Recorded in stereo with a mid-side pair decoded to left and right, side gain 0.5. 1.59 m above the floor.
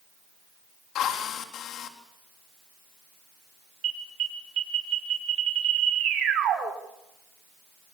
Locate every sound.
0.9 s a drill: 65° left, 3.5 m
3.8 s an alarm: 65° right, 7 m